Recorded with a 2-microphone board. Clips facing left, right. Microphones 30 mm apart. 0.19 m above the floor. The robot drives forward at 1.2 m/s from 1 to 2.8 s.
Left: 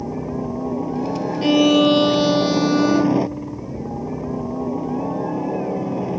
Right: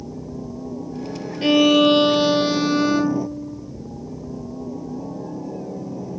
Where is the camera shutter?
I don't hear a camera shutter.